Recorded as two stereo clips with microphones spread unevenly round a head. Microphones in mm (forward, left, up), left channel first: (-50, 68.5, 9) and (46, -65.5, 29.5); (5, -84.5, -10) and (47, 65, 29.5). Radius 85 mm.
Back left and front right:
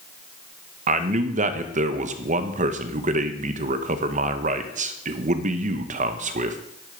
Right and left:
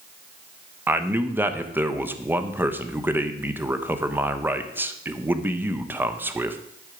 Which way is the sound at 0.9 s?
10° right.